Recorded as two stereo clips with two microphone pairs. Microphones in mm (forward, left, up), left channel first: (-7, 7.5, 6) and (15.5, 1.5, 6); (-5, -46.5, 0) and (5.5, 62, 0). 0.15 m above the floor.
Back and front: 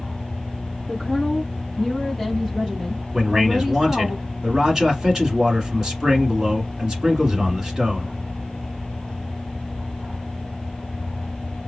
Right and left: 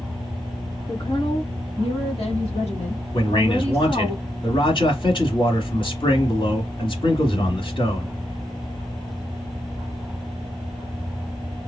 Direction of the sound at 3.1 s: 85° right.